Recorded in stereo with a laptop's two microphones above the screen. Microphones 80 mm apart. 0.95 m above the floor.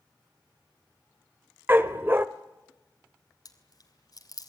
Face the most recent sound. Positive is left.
turn(degrees=50)  # may be behind; listen again after turning